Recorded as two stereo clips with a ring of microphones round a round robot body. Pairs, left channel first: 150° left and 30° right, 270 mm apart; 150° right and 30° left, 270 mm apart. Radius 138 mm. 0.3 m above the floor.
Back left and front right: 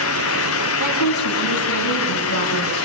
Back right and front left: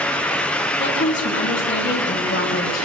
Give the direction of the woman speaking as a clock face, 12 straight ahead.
7 o'clock.